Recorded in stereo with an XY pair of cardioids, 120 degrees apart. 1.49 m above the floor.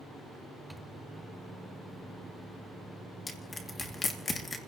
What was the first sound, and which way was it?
A microwave, 10° right.